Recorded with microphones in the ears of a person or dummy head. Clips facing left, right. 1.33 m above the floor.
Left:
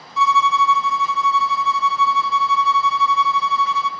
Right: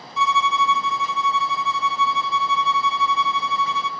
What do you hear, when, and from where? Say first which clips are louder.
0.2 s a violin: left 3 dB; 75° left (ahead or behind), 0.7 m